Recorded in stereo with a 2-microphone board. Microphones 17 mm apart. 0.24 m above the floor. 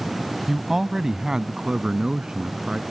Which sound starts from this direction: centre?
A man speaking, at 0.5 s.